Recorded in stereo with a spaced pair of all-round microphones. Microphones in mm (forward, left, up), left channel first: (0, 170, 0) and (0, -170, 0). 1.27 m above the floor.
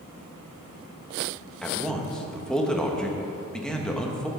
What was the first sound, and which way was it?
A man speaking, centre (ahead or behind).